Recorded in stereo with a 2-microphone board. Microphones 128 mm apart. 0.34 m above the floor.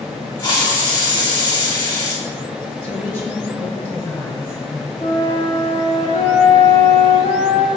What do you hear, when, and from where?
0.4 s a hiss: 35° left (ahead or behind), 2 m
2.8 s a woman speaking: 20° left (ahead or behind), 2.0 m
5.0 s a flute: 55° left (ahead or behind), 1.5 m